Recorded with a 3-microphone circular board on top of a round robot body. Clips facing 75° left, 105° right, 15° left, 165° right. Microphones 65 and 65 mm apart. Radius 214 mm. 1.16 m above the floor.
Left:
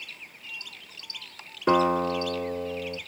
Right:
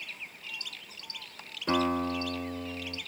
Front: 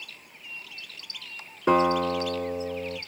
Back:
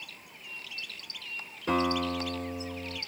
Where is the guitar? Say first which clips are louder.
Left 6 dB, front 6 dB; 45° left, 2.5 m.